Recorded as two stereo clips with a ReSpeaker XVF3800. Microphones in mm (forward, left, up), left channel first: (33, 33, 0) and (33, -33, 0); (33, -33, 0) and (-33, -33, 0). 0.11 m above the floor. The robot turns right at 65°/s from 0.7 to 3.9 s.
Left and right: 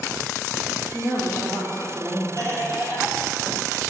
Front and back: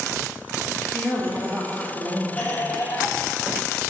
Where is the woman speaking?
120° left, 2.5 m; by 2.7 s 125° right, 2.5 m.